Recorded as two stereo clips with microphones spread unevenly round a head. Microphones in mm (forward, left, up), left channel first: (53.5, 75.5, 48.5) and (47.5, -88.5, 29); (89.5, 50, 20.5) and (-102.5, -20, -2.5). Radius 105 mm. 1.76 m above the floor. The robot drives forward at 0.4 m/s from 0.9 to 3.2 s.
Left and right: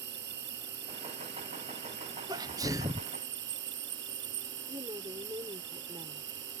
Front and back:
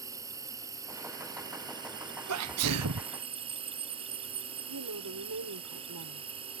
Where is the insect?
85° right; by 6.6 s 95° right.